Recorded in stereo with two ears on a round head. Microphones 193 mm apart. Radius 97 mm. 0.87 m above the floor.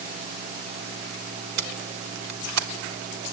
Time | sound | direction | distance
1.6 | tape being pulled | 80° right | 1.7 m